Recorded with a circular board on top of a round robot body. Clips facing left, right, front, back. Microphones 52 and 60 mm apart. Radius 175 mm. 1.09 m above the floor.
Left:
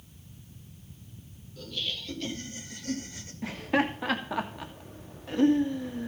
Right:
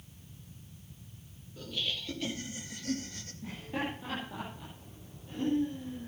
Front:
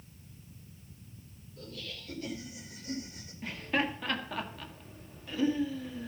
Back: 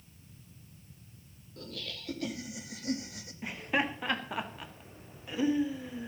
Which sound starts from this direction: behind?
Laughter, at 1.6 s.